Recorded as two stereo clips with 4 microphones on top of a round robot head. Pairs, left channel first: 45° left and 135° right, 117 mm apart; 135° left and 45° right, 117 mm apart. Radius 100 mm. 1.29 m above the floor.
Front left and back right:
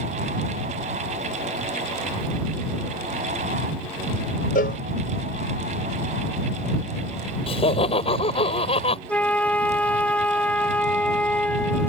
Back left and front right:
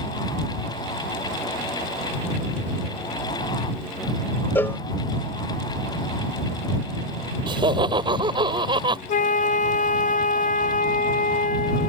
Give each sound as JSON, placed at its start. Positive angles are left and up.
{"t": 4.5, "sound": "a cowbell", "azimuth_deg": 60}
{"t": 7.5, "sound": "laughter", "azimuth_deg": 5}
{"t": 9.1, "sound": "a flute", "azimuth_deg": 125}